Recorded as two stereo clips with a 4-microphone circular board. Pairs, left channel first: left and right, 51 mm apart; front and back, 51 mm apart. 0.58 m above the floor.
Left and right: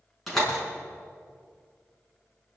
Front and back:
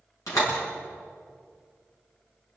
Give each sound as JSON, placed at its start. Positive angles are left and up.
{"t": 0.3, "sound": "a door slam", "azimuth_deg": 5, "distance_m": 6.0}